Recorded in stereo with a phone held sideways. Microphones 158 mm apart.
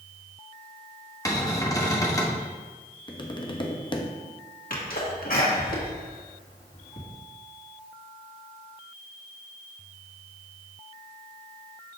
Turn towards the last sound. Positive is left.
turn(degrees=65)  # may be behind; listen again after turning